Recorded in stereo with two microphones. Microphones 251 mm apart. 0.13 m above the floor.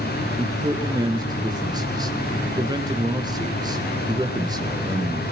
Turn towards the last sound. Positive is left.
turn(degrees=-15)  # may be behind; listen again after turning